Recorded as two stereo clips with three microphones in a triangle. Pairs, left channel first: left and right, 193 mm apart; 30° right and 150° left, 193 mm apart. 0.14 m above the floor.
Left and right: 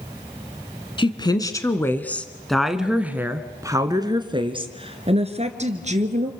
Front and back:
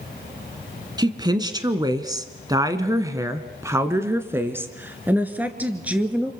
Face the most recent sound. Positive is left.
turn(degrees=-125)